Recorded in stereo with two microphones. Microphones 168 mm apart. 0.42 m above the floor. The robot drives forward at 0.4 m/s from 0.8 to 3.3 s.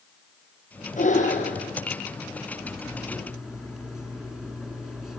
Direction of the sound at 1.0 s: 50° left (ahead or behind).